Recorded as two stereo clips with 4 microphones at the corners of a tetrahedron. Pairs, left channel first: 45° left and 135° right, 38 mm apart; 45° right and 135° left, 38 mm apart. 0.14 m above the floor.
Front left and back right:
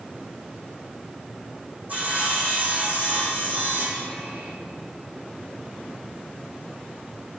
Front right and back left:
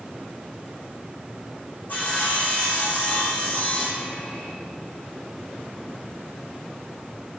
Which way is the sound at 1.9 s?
95° right.